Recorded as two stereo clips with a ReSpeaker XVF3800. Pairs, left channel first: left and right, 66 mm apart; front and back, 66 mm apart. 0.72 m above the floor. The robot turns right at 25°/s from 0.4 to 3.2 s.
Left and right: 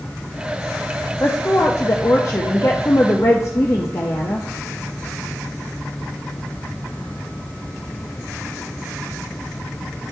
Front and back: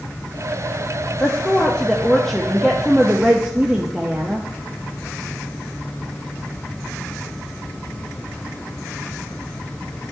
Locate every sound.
1.2 s a woman speaking: 60° left, 0.6 m; by 4.4 s 110° left, 0.6 m